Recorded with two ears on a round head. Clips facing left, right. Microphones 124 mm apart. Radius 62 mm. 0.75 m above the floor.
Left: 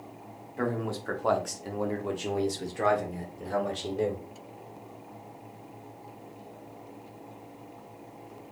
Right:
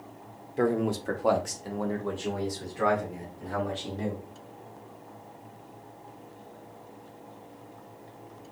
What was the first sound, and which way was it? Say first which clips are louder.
A man speaking: right 5 dB; 30° right (ahead or behind).